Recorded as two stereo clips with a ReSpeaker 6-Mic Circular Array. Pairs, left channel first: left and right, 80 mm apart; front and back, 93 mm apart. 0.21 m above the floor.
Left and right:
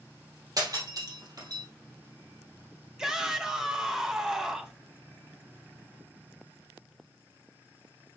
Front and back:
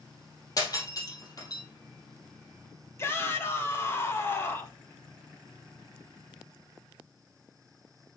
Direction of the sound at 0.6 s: 50° right.